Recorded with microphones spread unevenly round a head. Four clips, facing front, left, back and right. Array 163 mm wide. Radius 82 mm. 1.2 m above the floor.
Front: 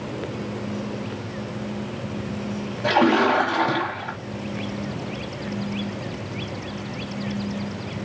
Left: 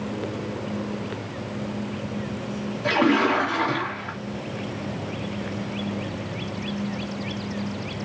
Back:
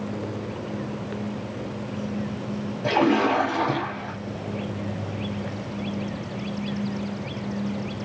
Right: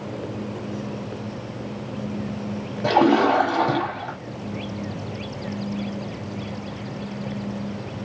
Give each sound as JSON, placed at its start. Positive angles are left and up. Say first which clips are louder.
{"t": 2.8, "sound": "a splash", "louder": "right 4 dB, front 2 dB", "azimuth_deg": -80, "distance_m": 1.7}